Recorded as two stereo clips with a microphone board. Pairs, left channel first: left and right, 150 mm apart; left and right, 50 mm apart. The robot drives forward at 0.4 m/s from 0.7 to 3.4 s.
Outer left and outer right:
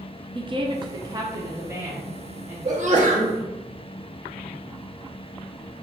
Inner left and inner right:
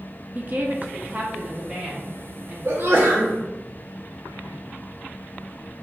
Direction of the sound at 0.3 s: 35° right (ahead or behind).